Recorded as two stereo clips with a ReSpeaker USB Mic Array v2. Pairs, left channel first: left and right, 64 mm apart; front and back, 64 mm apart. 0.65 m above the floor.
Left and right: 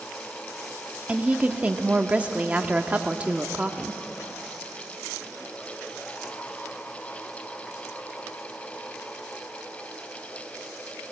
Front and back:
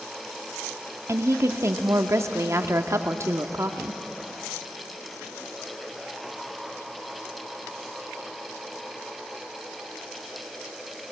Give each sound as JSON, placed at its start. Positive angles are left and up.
{"t": 1.1, "sound": "a woman speaking", "azimuth_deg": -155, "distance_m": 1.1}